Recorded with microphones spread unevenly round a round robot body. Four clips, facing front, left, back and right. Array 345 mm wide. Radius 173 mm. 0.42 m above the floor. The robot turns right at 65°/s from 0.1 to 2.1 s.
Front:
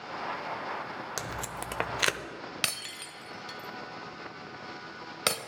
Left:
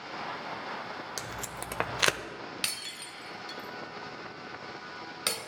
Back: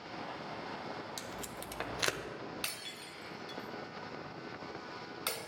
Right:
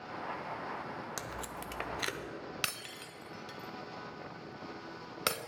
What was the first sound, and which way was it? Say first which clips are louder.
Tape being pulled: left 2 dB, front 7 dB; 5° left.